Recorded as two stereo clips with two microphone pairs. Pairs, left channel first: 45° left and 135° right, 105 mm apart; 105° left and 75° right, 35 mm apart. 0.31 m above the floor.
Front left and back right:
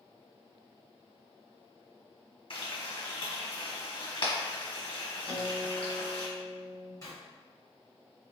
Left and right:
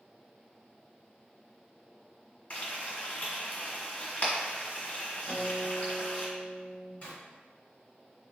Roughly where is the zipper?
Left.